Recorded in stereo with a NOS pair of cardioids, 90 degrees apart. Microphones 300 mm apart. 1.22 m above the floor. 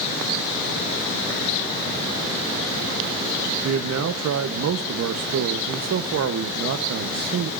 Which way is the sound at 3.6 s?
55° right.